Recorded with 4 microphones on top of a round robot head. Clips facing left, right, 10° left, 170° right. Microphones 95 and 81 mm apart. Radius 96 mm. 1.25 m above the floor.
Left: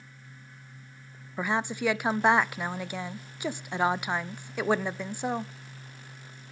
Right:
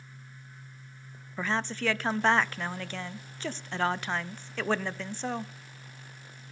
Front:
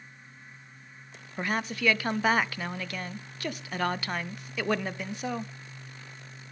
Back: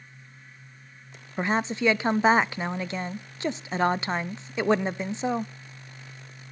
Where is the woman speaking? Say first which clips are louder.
Left 2 dB, back 5 dB; 155° left, 0.5 m.